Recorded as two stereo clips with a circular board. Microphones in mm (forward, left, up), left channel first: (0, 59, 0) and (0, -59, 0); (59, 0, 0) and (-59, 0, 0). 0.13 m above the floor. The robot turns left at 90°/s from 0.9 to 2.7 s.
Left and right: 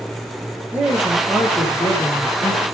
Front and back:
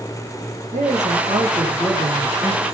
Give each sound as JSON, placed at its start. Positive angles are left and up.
{"t": 0.7, "sound": "a man speaking", "azimuth_deg": -165, "distance_m": 7.5}